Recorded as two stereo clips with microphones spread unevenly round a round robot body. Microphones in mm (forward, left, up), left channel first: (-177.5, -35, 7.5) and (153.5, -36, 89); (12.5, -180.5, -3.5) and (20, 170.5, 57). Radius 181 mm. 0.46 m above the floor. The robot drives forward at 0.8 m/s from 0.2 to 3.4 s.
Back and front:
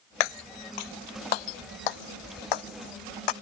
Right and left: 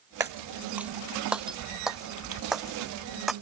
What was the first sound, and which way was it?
Breaking glass, 165° left.